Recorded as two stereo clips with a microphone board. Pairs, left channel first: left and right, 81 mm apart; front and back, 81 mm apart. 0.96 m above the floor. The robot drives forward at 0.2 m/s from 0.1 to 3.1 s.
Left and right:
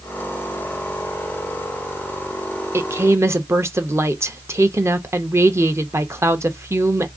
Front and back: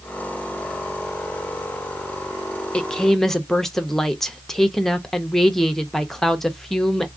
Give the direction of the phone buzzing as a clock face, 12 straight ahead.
No phone buzzing in this recording.